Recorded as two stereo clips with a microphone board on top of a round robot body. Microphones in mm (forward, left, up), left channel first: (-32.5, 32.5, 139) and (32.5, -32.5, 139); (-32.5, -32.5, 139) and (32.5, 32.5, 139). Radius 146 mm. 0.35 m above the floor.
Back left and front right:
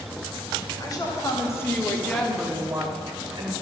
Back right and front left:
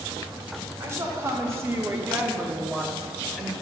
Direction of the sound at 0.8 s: 100° left.